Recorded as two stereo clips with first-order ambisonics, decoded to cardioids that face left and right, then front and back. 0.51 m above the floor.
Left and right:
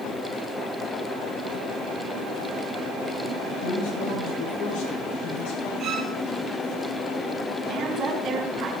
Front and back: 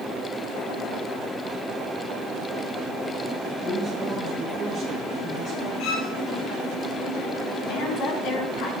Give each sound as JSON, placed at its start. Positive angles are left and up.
{"t": 3.6, "sound": "a woman speaking", "azimuth_deg": 110, "distance_m": 7.0}
{"t": 5.8, "sound": "a violin", "azimuth_deg": -35, "distance_m": 2.5}
{"t": 7.7, "sound": "a woman speaking", "azimuth_deg": -35, "distance_m": 4.5}